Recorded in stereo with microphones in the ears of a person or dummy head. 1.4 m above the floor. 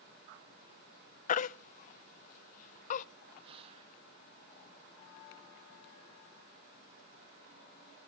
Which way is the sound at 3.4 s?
30° right (ahead or behind).